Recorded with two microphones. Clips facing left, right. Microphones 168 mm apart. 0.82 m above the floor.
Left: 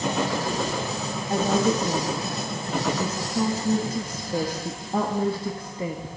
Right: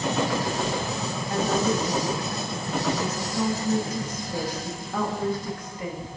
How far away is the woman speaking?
About 1.2 m.